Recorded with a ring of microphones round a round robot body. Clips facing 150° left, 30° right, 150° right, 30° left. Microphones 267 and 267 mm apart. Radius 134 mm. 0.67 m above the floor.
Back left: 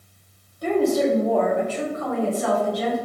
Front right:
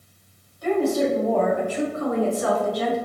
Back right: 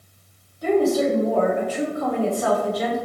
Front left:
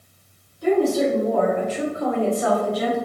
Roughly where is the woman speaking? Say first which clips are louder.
Back left 1 dB, even; behind.